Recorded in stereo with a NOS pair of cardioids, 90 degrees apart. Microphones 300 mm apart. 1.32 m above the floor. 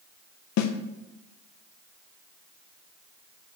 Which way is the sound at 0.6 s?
70° left.